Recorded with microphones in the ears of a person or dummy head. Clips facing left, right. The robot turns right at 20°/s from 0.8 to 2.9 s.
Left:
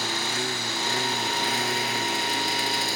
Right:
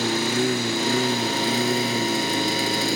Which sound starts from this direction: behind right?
A lawn mower, at 0.0 s.